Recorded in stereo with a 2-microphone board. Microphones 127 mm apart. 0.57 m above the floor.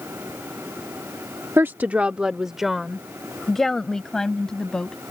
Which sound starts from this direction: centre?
A woman speaking, at 1.6 s.